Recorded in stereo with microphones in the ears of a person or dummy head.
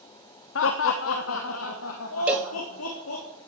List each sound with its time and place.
0.6 s laughter: 70° left (ahead or behind), 0.9 m; by 3.2 s 80° left, 2.5 m
2.3 s a cowbell: 10° right (ahead or behind), 0.7 m